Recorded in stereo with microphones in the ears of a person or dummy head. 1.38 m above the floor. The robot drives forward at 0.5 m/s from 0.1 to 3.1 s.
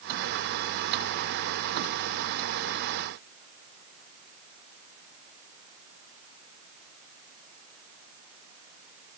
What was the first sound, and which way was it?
Only background noise.